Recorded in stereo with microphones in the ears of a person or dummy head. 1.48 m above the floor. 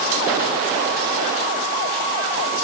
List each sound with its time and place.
Only background noise.